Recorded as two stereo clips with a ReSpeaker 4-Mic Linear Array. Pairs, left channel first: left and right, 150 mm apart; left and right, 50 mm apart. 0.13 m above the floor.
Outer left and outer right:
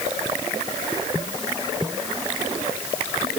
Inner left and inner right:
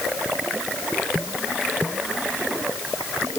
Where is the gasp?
No gasp in this recording.